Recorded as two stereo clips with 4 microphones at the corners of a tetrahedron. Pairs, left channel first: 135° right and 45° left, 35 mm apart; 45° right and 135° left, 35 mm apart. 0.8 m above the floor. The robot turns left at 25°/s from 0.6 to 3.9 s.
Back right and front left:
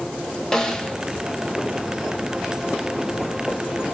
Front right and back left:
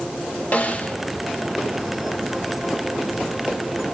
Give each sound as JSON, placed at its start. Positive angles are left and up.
{"t": 0.5, "sound": "a snare drum", "azimuth_deg": -65, "distance_m": 1.4}